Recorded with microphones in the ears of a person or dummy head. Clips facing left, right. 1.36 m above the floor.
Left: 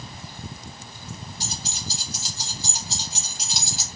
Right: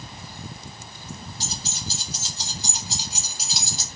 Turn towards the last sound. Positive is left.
turn(degrees=10)  # may be behind; listen again after turning